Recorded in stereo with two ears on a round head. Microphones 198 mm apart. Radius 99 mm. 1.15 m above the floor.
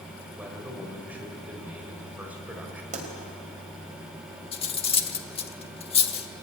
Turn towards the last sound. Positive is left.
turn(degrees=25)  # may be behind; listen again after turning